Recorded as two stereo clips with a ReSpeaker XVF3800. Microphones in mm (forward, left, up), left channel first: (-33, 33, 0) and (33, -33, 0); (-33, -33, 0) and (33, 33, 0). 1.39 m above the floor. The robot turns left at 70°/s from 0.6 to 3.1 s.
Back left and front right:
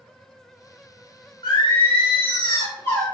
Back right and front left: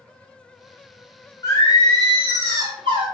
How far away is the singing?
About 0.9 m.